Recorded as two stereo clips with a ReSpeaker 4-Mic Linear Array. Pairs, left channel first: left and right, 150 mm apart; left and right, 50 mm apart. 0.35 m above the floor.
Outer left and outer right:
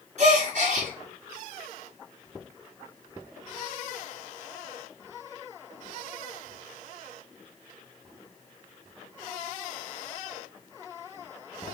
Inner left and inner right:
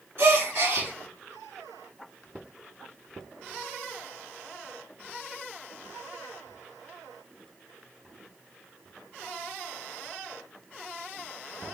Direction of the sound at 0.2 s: 55° right (ahead or behind).